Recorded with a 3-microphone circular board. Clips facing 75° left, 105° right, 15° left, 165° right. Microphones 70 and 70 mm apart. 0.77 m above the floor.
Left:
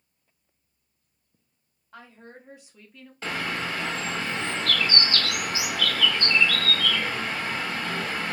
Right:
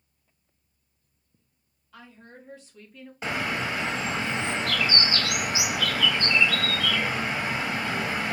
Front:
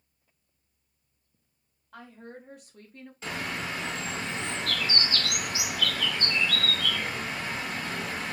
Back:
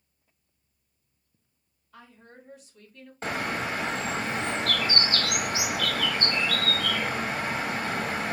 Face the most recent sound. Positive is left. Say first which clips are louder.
# right 1 dB, back 4 dB
turn(degrees=-170)